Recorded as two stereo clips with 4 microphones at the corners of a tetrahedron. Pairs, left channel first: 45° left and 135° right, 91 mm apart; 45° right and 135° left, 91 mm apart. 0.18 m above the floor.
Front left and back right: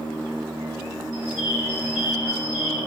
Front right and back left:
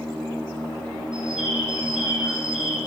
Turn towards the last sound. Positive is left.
turn(degrees=50)